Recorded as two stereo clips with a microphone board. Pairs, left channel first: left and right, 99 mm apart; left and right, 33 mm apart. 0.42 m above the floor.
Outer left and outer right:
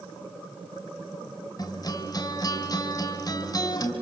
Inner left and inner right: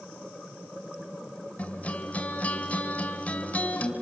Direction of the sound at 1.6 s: 40° left (ahead or behind).